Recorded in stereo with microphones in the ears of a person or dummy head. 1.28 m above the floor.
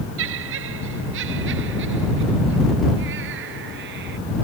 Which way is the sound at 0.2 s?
75° right (ahead or behind).